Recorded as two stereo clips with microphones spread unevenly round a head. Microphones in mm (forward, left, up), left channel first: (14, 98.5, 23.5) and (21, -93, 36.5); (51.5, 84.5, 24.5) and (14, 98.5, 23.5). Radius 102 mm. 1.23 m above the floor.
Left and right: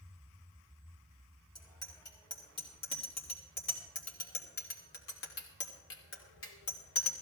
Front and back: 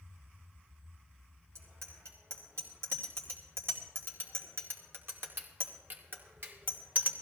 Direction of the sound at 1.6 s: 165° left.